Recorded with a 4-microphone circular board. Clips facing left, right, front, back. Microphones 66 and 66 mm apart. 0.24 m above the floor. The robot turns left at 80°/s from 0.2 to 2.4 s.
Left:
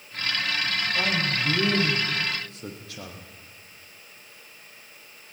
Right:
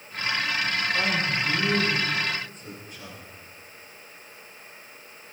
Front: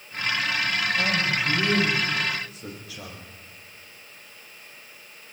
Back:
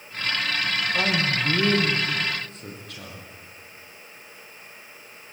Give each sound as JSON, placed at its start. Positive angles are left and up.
{"t": 0.9, "sound": "a man speaking", "azimuth_deg": -155, "distance_m": 7.5}